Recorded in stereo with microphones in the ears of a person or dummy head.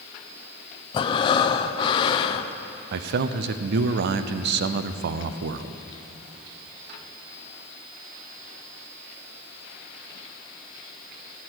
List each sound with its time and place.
0.9 s breathing: 30° left (ahead or behind), 0.5 m
2.9 s a man speaking: 65° right (ahead or behind), 0.5 m